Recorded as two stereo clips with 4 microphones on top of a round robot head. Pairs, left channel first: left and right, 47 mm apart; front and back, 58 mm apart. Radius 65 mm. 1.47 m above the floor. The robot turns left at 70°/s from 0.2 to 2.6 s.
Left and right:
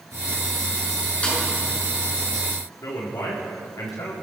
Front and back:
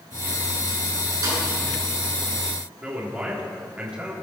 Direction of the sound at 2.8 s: 105° left.